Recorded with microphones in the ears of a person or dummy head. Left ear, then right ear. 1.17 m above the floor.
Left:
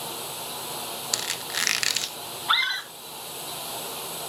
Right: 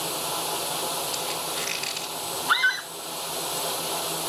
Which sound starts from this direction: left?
A squeak, at 1.1 s.